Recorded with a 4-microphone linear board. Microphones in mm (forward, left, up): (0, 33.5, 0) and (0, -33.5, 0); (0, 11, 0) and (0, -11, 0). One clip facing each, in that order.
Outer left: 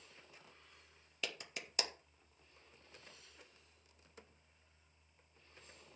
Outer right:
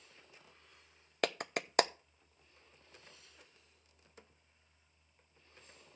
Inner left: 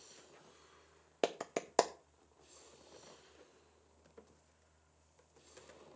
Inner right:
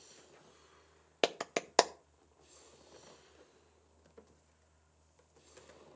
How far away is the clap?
About 0.5 m.